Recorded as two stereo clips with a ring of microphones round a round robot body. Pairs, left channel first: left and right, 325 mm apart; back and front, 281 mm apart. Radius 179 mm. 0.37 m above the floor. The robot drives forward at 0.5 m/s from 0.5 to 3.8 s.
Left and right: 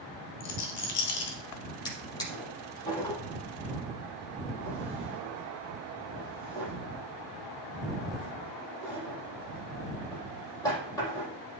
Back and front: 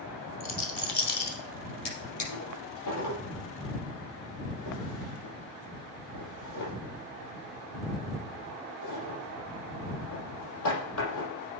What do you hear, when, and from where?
0.4 s a rattle: 125° left, 2.5 m; by 1.4 s 135° left, 2.5 m
1.9 s a drawer: 170° left, 5.5 m